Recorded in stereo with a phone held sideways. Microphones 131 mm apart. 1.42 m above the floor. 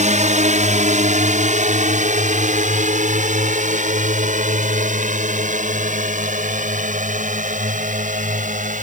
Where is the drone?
60° right (ahead or behind); by 8.8 s 70° right (ahead or behind).